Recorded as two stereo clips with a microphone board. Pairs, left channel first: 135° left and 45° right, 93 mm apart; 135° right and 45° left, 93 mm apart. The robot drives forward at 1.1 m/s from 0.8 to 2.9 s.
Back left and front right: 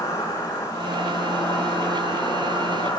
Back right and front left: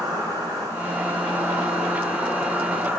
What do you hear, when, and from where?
0.0 s an insect: 85° left, 6.5 m; by 3.0 s 105° left, 6.5 m